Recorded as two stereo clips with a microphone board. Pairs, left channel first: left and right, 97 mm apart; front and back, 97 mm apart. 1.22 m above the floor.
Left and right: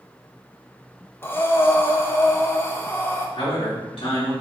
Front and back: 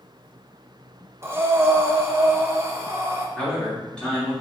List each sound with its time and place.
1.2 s breathing: 135° left, 0.9 m
3.4 s a man speaking: 80° left, 3 m